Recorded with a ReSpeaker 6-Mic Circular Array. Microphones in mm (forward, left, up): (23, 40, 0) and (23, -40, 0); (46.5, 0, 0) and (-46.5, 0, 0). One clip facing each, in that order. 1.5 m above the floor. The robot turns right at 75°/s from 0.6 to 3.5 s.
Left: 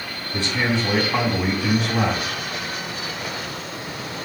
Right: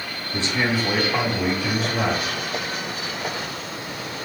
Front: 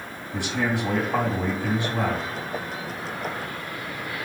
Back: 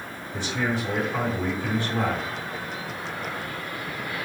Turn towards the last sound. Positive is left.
turn(degrees=-160)